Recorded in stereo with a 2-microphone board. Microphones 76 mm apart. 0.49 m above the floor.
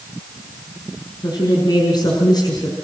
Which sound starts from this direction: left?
A woman speaking, at 1.2 s.